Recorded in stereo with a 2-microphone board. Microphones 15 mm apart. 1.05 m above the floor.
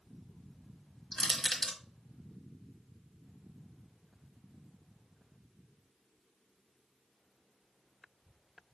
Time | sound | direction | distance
1.1 | crushing | 45° left (ahead or behind) | 1.3 m